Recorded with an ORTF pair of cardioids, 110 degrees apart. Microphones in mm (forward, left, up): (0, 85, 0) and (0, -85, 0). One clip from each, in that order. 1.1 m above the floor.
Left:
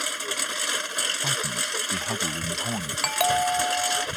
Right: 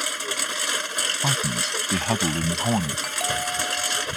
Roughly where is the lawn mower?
Ahead.